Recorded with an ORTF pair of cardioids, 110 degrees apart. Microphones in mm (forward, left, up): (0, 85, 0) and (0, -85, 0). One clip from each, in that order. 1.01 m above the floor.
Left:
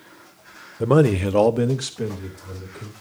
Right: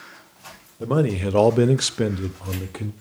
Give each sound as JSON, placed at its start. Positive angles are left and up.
{"t": 0.8, "sound": "a man speaking", "azimuth_deg": 35, "distance_m": 0.9}